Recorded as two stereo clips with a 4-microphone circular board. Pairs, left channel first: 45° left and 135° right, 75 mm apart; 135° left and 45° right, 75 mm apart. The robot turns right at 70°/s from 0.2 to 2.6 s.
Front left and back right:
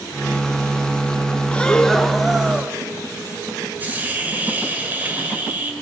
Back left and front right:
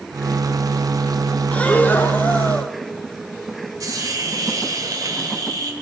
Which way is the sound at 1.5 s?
95° left.